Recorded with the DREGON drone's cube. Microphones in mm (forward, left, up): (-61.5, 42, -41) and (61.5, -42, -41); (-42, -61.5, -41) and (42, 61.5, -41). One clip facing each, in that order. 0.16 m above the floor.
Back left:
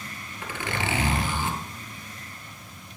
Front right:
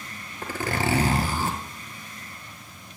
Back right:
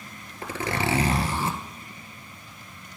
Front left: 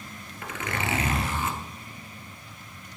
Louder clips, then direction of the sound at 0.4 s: Front right 4 dB, back right 4 dB; 75° right.